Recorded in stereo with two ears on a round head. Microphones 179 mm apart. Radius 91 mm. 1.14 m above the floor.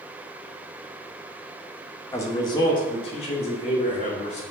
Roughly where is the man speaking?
Centre.